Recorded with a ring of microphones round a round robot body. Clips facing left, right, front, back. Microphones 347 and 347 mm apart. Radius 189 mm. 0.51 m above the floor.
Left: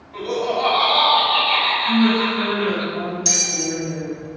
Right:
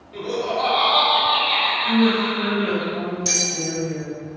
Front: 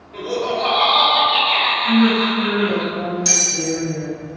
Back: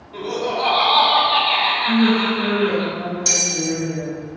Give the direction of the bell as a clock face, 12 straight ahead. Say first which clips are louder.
Left 1 dB, even; 11 o'clock.